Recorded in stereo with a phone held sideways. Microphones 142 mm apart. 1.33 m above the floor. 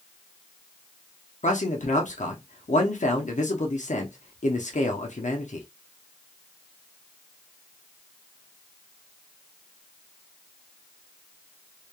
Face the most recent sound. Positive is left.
turn(degrees=60)  # may be behind; listen again after turning